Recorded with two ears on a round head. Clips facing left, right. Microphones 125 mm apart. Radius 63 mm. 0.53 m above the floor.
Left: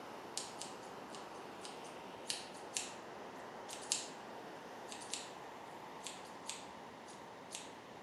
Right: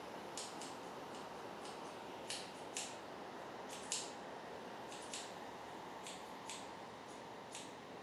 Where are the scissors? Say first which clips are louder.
Even; 40° left (ahead or behind), 0.6 m.